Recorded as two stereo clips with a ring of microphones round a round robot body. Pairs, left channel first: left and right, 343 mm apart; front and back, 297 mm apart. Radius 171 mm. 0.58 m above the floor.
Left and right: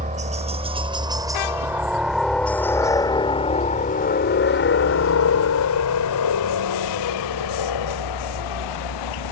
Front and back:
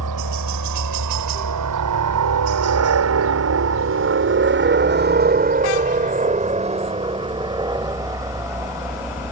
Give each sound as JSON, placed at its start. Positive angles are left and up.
{"t": 0.0, "sound": "a helicopter", "azimuth_deg": -155}